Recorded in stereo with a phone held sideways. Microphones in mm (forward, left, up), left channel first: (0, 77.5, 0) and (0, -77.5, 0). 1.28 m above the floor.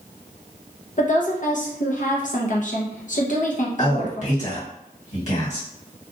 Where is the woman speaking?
55° left (ahead or behind), 0.7 m.